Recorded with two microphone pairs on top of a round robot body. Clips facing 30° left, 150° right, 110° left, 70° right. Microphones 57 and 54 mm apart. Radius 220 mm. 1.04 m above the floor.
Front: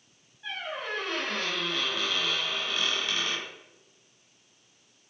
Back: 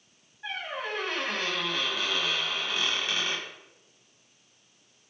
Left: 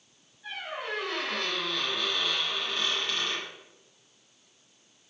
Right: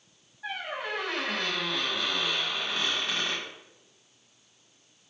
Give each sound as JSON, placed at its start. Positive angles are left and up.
{"t": 0.4, "sound": "a squeak", "azimuth_deg": -80, "distance_m": 0.6}